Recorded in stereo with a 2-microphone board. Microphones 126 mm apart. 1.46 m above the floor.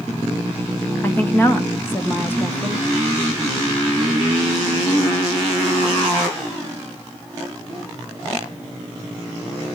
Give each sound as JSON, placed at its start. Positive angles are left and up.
{"t": 1.0, "sound": "a woman speaking", "side_deg": 15, "distance_m": 1.6}